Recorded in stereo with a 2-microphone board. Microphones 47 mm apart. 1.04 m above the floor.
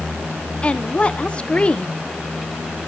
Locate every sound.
0.6 s a woman speaking: 25° left (ahead or behind), 0.8 m